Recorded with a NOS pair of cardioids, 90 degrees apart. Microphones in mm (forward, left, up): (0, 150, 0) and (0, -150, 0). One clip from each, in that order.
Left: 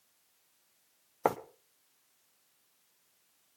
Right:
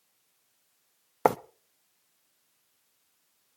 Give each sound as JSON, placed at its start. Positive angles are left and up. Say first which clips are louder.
{"t": 1.2, "sound": "writing", "louder": "right 6 dB", "azimuth_deg": -30, "distance_m": 0.8}